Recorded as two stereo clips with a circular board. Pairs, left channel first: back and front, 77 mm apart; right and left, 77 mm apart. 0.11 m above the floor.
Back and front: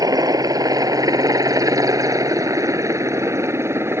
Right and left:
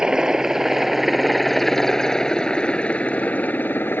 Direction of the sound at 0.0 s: 15° left.